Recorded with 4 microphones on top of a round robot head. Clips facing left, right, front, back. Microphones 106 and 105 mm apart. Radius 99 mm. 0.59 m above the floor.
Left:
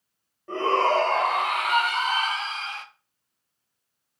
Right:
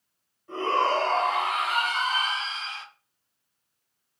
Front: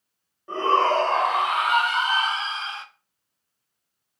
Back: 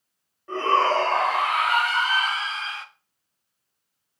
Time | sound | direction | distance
0.5 | a shout | 75° left | 3 m